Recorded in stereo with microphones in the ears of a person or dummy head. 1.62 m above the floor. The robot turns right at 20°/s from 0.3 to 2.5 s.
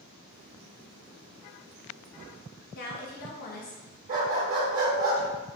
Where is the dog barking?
35° right (ahead or behind), 1.2 m.